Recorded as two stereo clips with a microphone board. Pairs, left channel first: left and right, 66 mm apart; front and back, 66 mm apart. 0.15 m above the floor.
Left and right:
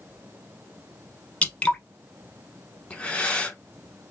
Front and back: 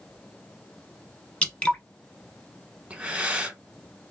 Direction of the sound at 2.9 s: 135° left.